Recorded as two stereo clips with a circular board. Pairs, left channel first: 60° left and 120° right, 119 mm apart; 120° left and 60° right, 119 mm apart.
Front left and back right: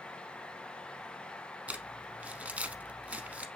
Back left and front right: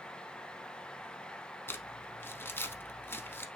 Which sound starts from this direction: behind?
Crumpling, at 1.7 s.